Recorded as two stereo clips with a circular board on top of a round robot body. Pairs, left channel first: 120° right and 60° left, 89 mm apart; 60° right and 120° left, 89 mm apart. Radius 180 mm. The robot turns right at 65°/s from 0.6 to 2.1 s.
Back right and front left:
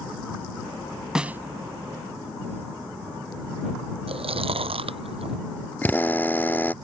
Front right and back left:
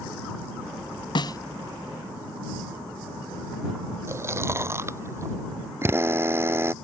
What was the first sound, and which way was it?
A snare drum, 25° right.